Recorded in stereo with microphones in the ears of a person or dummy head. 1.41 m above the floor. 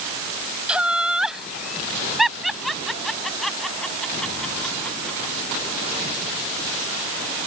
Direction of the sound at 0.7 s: 5° right (ahead or behind).